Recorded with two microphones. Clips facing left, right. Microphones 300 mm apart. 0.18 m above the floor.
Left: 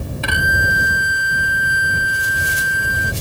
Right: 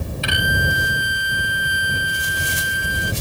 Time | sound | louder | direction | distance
0.2 | a violin | right 1 dB | 60° left (ahead or behind) | ?